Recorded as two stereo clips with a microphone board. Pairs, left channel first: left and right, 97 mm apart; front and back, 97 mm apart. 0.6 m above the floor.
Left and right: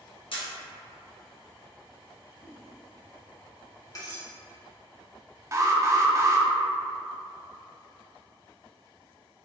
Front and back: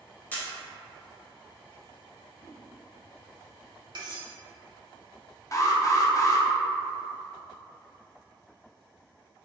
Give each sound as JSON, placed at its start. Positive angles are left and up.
{"t": 0.3, "sound": "a camera shutter", "azimuth_deg": 75, "distance_m": 0.9}
{"t": 2.4, "sound": "a whoosh", "azimuth_deg": -25, "distance_m": 1.3}
{"t": 4.0, "sound": "cutlery clinking", "azimuth_deg": 140, "distance_m": 0.9}
{"t": 5.5, "sound": "an alarm", "azimuth_deg": -40, "distance_m": 0.5}